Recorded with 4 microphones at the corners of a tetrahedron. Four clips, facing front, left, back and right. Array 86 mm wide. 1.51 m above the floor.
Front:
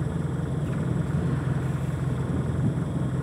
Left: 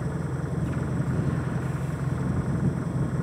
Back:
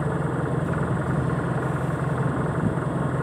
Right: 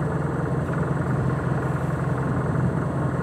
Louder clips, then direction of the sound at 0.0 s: Right 6 dB, back 5 dB; 140° right.